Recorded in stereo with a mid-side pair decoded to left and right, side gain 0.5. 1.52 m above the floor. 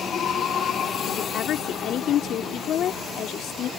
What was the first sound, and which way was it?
A woman speaking, 65° left.